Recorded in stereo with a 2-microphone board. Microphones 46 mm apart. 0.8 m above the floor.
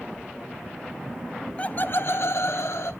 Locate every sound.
1.6 s laughter: 25° left (ahead or behind), 0.6 m; by 2.9 s 75° left (ahead or behind), 1.3 m